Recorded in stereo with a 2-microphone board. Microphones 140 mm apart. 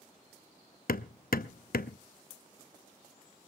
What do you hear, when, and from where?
0.9 s hammering: 75° left (ahead or behind), 0.7 m